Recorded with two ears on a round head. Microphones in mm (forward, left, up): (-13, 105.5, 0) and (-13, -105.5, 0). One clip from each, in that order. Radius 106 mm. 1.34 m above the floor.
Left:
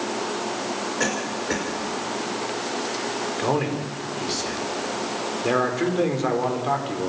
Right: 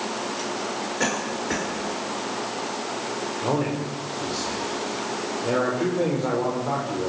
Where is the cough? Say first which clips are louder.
Right 1 dB; 5° left (ahead or behind), 6 m.